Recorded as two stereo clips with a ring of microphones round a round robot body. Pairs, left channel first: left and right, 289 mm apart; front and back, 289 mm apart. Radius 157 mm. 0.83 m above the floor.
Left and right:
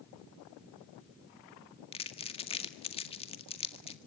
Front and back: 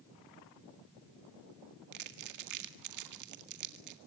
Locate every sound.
1.9 s crumpling: 160° left, 1.9 m